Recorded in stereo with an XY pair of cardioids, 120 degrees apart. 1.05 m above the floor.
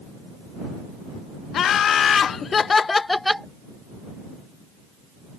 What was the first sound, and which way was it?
Laughter, 55° left.